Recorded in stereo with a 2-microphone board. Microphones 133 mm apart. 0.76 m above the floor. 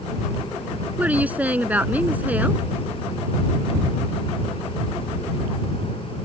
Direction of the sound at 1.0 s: 10° right (ahead or behind).